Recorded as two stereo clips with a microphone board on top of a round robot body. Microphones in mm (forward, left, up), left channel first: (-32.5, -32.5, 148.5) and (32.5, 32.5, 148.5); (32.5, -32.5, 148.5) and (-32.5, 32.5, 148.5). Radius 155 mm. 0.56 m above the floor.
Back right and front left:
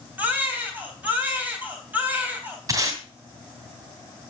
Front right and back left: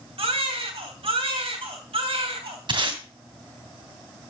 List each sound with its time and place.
0.2 s a baby crying: 120° left, 3 m
2.7 s tape being pulled: 100° left, 2.5 m